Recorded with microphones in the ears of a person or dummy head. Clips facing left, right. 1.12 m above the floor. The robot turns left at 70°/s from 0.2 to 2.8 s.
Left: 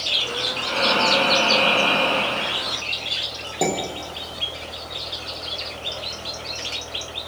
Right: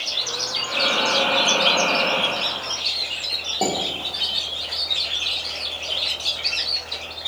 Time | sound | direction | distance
0.6 | breathing | 105° left | 3.5 m
3.6 | dishes clattering | 15° left (ahead or behind) | 2 m